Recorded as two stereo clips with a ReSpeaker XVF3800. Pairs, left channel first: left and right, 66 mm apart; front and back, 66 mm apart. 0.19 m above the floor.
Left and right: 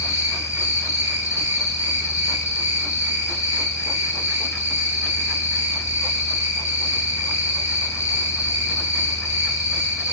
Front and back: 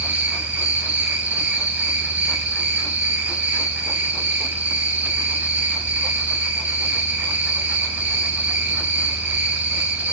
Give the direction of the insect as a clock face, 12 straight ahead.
8 o'clock.